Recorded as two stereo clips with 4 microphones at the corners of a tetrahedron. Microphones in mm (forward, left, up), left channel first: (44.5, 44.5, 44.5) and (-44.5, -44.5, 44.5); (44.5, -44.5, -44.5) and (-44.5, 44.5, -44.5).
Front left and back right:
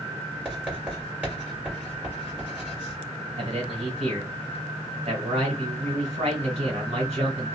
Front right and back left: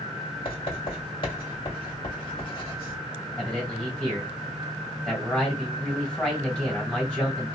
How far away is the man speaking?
About 1.7 m.